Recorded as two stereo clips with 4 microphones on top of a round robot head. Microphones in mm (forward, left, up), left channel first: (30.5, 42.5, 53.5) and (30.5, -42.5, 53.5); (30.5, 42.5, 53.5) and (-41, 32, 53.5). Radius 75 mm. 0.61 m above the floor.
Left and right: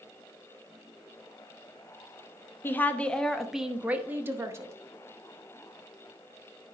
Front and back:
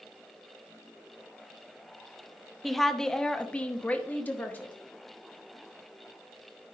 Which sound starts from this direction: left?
A woman speaking, at 2.6 s.